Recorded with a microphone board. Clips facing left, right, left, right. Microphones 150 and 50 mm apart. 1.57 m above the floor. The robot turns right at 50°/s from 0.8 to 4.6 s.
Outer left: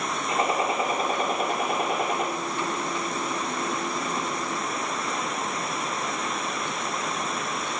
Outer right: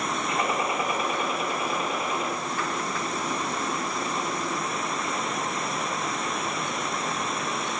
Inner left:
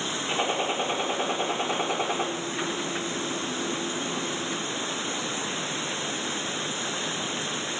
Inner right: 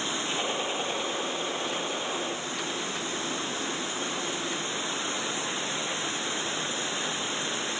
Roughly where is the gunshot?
Ahead left.